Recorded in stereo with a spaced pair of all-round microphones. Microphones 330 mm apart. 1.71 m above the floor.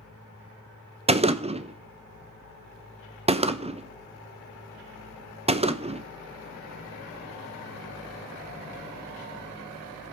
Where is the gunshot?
20° right (ahead or behind), 0.6 m.